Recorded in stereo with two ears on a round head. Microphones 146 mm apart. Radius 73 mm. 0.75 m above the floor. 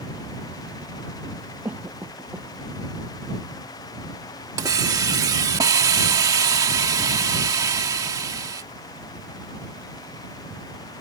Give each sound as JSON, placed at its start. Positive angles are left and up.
{"t": 1.6, "sound": "a cough", "side_deg": -15}
{"t": 4.6, "sound": "a hiss", "side_deg": -20}